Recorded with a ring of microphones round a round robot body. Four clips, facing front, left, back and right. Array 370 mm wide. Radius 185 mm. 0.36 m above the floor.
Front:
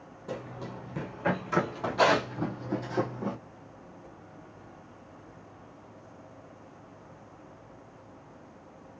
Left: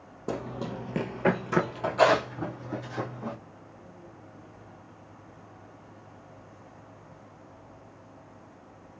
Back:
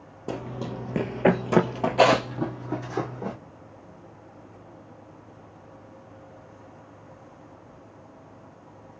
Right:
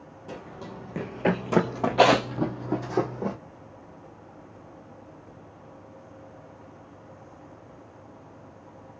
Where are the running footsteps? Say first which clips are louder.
Left 7 dB, back 6 dB; 135° left, 0.8 m; by 3.4 s 100° right, 1.3 m.